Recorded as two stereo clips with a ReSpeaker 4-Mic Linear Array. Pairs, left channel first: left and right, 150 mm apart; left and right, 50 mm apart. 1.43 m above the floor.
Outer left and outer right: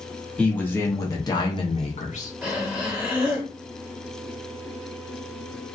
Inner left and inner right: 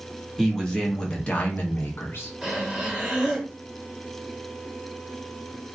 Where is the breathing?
10° right (ahead or behind), 2.0 m.